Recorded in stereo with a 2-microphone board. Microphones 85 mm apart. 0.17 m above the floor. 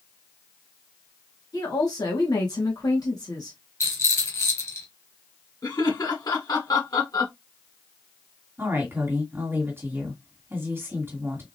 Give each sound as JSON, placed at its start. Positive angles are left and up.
{"t": 1.5, "sound": "a woman speaking", "side_deg": 50, "distance_m": 2.0}
{"t": 3.8, "sound": "a rattle", "side_deg": 35, "distance_m": 1.4}
{"t": 5.6, "sound": "laughter", "side_deg": 50, "distance_m": 1.7}
{"t": 8.6, "sound": "a woman speaking", "side_deg": -30, "distance_m": 1.8}